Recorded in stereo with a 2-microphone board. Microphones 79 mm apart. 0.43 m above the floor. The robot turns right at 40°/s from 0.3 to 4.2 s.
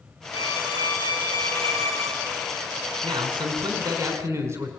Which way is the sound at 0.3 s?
75° left.